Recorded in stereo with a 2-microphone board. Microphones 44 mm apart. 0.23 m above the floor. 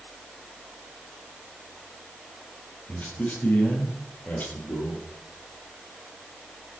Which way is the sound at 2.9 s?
40° left (ahead or behind).